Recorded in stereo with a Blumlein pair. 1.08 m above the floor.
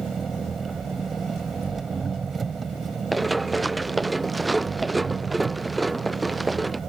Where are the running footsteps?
10° right.